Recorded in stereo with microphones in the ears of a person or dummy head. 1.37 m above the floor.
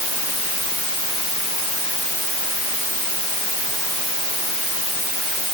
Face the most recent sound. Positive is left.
No sound to turn to.